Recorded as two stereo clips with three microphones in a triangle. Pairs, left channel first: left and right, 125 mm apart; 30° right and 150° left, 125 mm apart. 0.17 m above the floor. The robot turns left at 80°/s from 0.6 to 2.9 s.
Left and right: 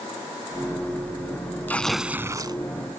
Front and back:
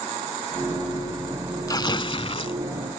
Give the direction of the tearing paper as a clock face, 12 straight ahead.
11 o'clock.